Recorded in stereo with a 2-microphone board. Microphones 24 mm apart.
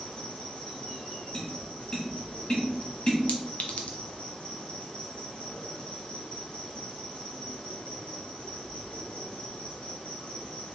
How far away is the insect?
About 1.2 m.